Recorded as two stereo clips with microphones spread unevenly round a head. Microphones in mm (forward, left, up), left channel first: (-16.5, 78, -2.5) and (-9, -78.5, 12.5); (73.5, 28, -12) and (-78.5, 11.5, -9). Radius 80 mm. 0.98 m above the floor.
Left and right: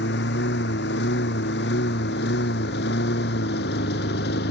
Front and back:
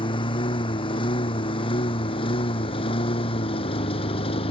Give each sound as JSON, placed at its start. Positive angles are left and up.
{"t": 0.0, "sound": "a lawn mower", "azimuth_deg": 65}